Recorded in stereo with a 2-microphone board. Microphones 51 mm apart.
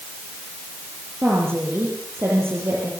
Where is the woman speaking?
50° right (ahead or behind), 8 m.